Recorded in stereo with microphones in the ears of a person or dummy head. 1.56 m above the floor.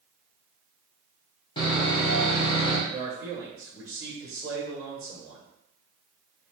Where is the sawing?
25° left (ahead or behind), 1.2 m.